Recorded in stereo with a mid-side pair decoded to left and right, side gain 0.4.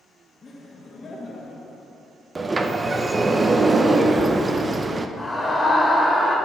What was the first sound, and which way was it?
Laughter, 40° left.